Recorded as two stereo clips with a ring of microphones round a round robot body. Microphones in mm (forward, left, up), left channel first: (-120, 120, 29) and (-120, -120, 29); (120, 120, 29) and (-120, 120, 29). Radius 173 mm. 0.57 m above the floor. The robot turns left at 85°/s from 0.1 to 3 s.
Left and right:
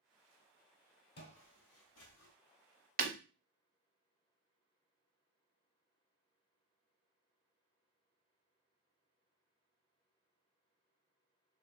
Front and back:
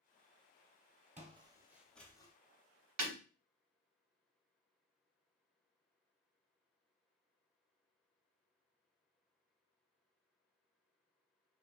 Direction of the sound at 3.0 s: 145° right.